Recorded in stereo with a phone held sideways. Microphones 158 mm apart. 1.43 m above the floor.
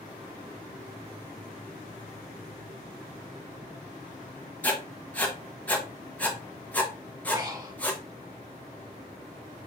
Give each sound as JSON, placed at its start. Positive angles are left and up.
{"t": 4.6, "sound": "writing", "side_deg": 10, "distance_m": 1.0}
{"t": 7.3, "sound": "breathing", "side_deg": -25, "distance_m": 1.0}